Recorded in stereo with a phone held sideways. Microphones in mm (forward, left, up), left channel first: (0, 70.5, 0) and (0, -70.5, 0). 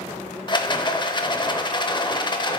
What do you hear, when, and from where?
0.5 s a rattle: 35° left (ahead or behind), 0.6 m